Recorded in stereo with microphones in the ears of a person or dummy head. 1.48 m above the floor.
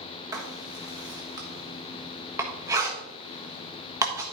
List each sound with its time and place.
0.3 s writing: 20° right (ahead or behind), 1.4 m